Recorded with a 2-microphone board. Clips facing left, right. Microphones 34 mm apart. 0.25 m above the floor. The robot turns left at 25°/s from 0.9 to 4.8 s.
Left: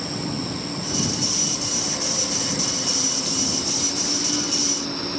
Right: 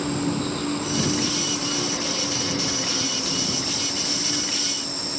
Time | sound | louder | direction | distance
0.0 | an insect | right 4 dB | 110° right | ?